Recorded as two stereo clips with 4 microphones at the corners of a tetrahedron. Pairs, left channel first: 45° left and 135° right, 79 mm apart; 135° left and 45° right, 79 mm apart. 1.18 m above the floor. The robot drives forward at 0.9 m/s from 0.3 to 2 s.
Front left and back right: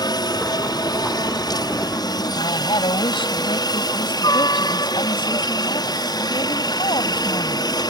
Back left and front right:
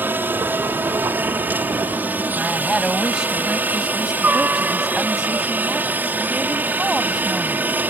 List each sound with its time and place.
0.0 s a helicopter: 20° left
2.4 s a woman speaking: 40° left